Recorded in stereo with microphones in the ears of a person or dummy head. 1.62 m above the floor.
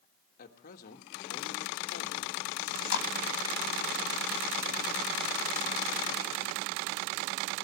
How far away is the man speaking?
About 2.0 m.